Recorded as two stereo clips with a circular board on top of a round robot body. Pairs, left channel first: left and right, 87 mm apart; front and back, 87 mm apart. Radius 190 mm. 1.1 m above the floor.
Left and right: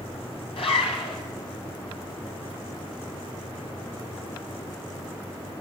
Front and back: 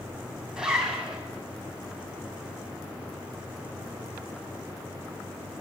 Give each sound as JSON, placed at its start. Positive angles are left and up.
{"t": 0.6, "sound": "a zipper", "azimuth_deg": 95, "distance_m": 3.5}